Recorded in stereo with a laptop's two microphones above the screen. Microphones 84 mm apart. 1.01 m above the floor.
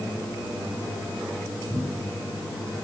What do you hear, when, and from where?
1.7 s a cupboard door: 70° left (ahead or behind), 3.5 m